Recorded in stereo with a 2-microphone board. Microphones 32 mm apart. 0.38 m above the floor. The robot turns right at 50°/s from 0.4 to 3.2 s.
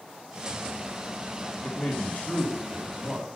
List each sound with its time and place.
1.6 s a man speaking: 40° left, 2.0 m; by 3.3 s 120° left, 2.0 m